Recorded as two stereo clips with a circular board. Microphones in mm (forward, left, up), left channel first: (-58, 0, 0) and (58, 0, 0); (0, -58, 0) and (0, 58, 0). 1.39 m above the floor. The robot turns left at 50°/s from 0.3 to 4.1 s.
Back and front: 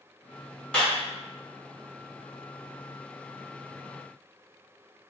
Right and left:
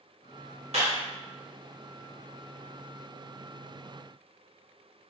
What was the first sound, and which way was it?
A clap, 100° left.